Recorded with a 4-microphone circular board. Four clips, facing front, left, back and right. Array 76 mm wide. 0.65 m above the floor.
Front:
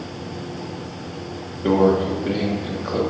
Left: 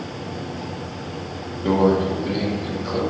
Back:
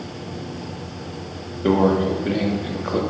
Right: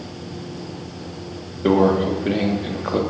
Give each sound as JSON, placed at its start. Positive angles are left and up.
{"t": 1.6, "sound": "a microwave", "azimuth_deg": -95, "distance_m": 1.0}